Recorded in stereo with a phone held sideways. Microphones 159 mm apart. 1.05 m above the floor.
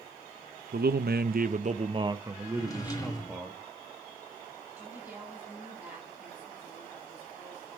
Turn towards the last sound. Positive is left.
turn(degrees=-15)  # may be behind; listen again after turning